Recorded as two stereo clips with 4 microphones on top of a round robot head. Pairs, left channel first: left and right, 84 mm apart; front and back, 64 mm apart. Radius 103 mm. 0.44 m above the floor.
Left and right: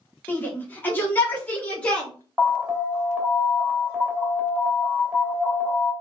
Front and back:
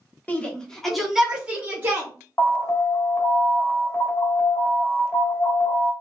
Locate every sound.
0.3 s a shout: 40° left, 1.3 m; by 2.1 s 160° left, 1.4 m
2.4 s an alarm: 20° right, 1.1 m